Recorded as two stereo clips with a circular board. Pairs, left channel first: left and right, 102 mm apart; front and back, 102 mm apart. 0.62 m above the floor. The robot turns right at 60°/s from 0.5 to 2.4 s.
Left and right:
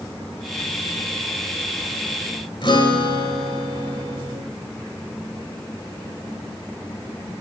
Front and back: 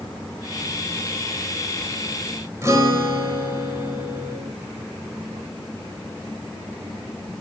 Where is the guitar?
120° left, 3 m.